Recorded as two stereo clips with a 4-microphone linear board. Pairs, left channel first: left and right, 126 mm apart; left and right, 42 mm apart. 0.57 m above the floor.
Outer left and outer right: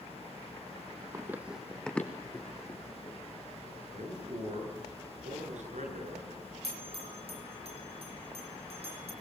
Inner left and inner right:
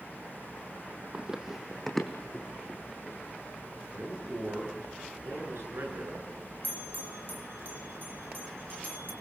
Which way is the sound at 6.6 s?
50° right (ahead or behind).